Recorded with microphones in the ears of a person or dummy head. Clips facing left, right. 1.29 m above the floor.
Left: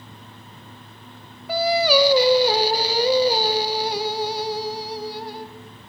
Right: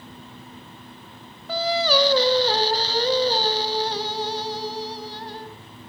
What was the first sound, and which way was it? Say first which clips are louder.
Singing: left 3 dB; 15° left (ahead or behind).